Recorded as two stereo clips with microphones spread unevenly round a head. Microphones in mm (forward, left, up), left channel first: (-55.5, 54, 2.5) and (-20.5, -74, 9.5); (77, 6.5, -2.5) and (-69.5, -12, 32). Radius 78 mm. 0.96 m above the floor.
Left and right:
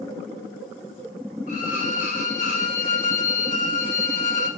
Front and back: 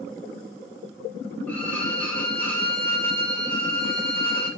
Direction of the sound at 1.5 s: 80° left.